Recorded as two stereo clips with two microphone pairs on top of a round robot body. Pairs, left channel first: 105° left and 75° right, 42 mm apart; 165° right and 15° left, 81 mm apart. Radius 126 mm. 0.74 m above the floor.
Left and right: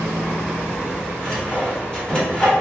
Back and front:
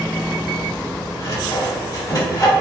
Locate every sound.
1.2 s sawing: 165° left, 1.5 m